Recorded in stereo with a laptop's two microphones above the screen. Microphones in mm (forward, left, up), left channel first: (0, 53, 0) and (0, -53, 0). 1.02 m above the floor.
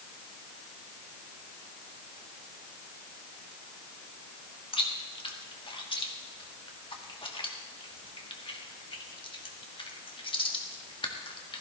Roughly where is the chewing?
Left.